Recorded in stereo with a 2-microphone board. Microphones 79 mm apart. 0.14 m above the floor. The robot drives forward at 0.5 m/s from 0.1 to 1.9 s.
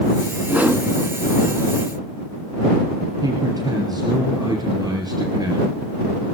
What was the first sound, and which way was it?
A whoosh, 25° right (ahead or behind).